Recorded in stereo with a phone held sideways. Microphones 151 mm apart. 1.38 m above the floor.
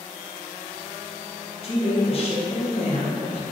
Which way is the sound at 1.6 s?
40° left (ahead or behind).